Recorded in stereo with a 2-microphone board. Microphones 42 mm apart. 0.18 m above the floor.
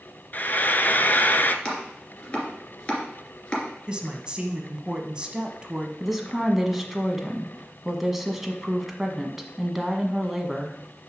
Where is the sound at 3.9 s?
20° right (ahead or behind), 1.1 m.